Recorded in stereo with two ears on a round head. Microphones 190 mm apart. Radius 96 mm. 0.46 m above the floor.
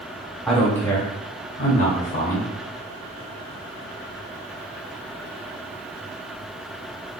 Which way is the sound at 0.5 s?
Centre (ahead or behind).